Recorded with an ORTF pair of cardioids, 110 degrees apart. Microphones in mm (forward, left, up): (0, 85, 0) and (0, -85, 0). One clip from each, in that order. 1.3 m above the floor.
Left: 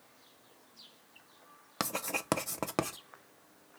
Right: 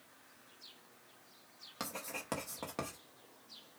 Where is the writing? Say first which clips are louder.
Left 8 dB; 55° left, 0.8 m.